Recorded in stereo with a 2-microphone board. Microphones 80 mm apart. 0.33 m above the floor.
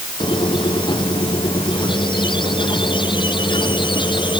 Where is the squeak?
85° left.